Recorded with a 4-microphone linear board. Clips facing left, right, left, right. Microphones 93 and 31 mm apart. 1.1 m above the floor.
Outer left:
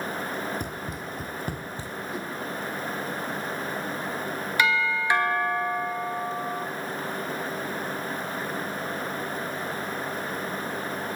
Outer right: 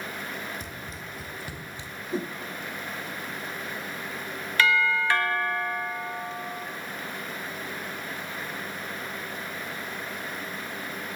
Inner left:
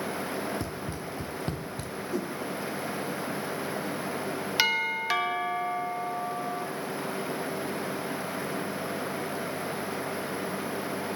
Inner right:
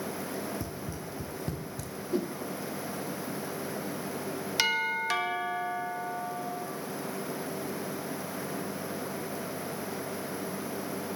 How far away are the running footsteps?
About 2 m.